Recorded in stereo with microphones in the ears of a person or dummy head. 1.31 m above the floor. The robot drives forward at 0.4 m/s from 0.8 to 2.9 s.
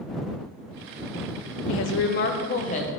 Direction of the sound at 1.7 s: 75° left (ahead or behind).